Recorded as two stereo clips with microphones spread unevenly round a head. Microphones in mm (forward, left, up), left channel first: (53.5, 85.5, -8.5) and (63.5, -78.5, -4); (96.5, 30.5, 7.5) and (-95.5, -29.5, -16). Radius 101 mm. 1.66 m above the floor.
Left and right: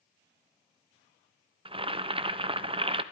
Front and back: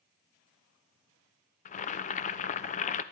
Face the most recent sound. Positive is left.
turn(degrees=-30)